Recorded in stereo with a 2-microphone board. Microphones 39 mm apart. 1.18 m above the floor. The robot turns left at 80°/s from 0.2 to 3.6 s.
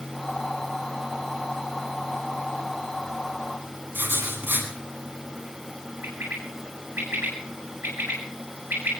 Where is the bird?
75° right (ahead or behind), 8 m.